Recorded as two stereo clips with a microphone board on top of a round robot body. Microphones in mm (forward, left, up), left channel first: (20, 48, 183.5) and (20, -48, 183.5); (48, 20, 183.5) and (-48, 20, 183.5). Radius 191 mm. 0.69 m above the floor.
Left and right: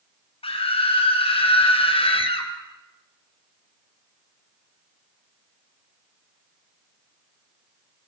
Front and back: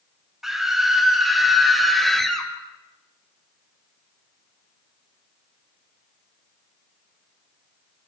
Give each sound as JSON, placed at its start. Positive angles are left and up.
{"t": 0.4, "sound": "a scream", "azimuth_deg": 95, "distance_m": 6.0}